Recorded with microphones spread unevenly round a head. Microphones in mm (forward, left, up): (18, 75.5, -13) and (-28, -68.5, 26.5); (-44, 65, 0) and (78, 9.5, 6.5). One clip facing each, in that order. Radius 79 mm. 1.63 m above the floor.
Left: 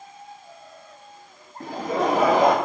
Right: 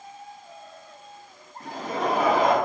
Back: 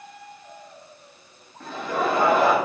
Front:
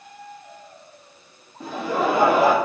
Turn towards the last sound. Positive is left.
turn(degrees=45)